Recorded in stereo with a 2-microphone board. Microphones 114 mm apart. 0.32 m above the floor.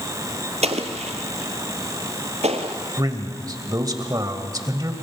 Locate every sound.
0.6 s an explosion: 75° right (ahead or behind), 1.5 m
3.0 s a man speaking: 35° right (ahead or behind), 1.5 m